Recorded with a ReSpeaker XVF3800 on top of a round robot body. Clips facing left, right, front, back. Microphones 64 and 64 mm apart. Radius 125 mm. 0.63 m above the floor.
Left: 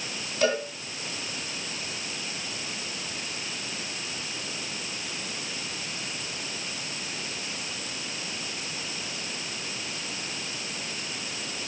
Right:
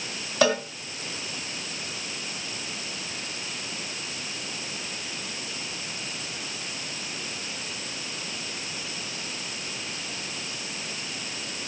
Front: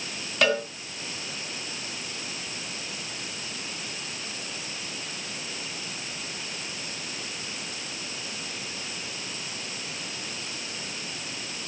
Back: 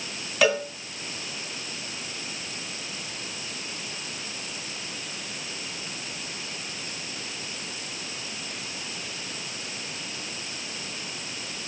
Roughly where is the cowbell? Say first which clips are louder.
Right 3 dB, back 2 dB; right.